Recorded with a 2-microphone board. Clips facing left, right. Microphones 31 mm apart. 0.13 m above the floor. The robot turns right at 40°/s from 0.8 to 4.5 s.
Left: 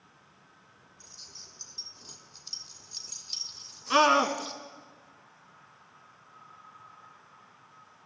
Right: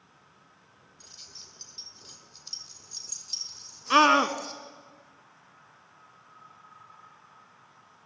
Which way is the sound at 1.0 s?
55° right (ahead or behind).